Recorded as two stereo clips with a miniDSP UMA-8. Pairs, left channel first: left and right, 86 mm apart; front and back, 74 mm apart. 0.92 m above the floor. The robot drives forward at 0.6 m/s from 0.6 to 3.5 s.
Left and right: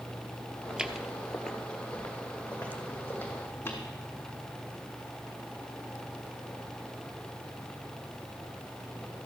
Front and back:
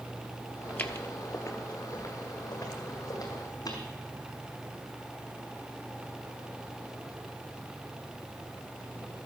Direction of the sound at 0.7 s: 30° right.